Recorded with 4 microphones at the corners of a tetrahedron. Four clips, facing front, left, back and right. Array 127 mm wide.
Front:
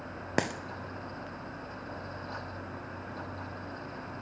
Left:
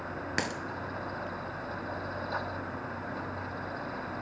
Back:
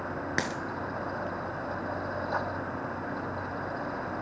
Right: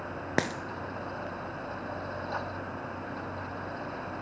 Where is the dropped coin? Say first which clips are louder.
Right 5 dB, front 3 dB; 60° right, 0.7 m.